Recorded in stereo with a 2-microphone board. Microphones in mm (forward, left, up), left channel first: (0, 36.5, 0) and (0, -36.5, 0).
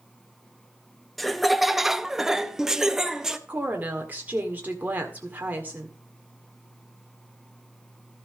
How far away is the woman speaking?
About 1.6 m.